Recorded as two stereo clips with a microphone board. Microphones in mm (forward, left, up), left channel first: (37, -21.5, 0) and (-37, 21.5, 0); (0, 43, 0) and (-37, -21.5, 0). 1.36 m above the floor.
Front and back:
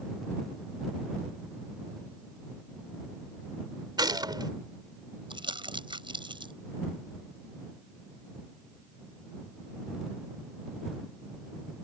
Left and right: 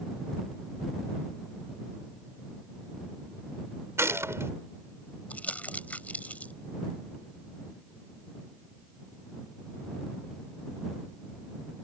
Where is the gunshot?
175° right.